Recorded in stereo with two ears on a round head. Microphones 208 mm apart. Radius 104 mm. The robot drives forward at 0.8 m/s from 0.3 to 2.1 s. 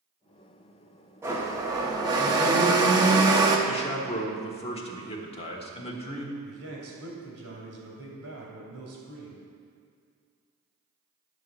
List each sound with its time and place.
1.2 s a blender: 10° right (ahead or behind), 1.2 m; by 3.6 s 15° right (ahead or behind), 0.9 m
3.7 s a man speaking: 25° left (ahead or behind), 1.2 m
6.4 s a man speaking: 70° right (ahead or behind), 2.5 m